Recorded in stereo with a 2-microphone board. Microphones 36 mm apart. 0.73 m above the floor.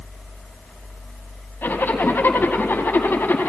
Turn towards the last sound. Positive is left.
turn(degrees=70)  # may be behind; listen again after turning